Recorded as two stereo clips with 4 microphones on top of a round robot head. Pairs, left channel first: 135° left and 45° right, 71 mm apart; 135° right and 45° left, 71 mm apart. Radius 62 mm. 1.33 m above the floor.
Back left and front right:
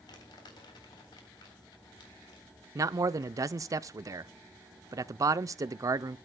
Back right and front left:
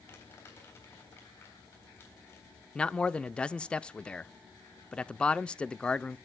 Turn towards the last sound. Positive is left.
turn(degrees=-65)